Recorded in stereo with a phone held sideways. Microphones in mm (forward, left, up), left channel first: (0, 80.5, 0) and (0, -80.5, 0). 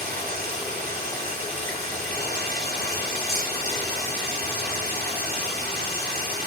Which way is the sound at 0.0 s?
70° right (ahead or behind).